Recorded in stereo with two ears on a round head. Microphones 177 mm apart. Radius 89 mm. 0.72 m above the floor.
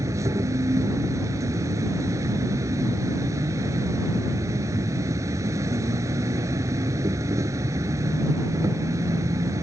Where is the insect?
15° right (ahead or behind).